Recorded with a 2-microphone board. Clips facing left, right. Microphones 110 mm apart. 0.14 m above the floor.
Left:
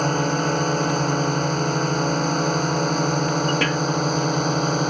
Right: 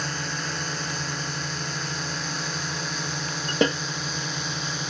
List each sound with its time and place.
0.0 s a drone: 50° left (ahead or behind)
3.6 s a snare drum: 20° right (ahead or behind)